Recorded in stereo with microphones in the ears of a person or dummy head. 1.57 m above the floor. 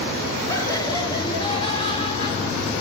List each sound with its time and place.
0.5 s laughter: 15° left (ahead or behind), 3 m; by 2.7 s 35° left (ahead or behind), 4.5 m